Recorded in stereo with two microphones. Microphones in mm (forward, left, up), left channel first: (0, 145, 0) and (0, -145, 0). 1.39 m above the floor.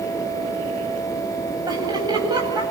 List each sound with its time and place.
1.7 s laughter: 15° right (ahead or behind), 9.5 m